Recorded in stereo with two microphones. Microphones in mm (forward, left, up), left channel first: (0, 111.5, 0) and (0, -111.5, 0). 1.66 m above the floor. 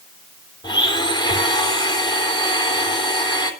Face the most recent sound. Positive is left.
turn(degrees=20)  # may be behind; listen again after turning